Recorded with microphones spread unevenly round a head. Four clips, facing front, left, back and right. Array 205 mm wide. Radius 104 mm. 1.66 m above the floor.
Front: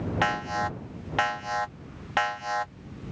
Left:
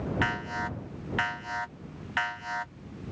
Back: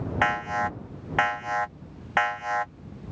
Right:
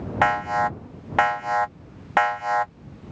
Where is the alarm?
95° right.